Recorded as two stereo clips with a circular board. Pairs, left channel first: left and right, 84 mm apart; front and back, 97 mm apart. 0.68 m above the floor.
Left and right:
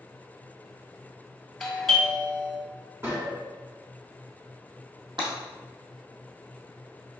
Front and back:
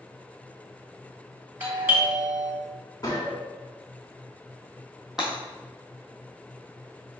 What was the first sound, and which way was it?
A doorbell, 170° left.